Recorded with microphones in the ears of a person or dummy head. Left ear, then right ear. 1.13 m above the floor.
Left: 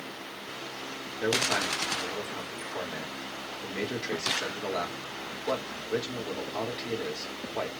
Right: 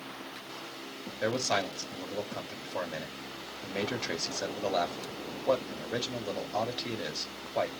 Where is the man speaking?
30° right (ahead or behind), 1.8 m.